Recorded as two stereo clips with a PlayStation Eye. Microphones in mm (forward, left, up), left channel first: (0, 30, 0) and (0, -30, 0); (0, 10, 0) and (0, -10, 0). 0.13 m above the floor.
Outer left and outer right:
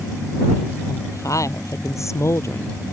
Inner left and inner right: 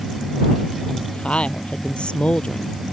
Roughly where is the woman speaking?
Left.